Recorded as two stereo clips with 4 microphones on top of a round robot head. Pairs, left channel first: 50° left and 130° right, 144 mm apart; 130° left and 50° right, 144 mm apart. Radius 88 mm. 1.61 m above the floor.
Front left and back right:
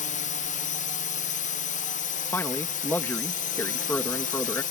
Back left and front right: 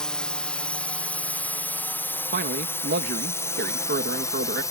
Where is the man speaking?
25° right.